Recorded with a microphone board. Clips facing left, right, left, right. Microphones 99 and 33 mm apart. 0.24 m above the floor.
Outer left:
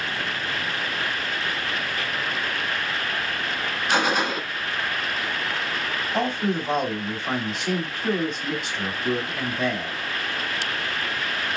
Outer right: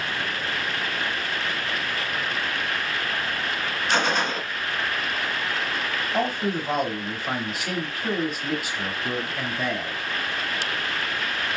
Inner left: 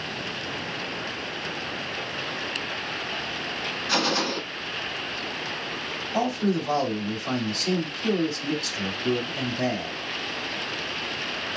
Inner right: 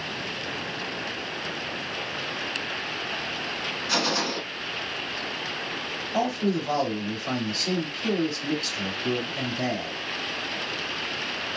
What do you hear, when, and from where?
3.9 s a gunshot: 10° left (ahead or behind), 0.6 m
6.1 s a man speaking: 5° right (ahead or behind), 1.1 m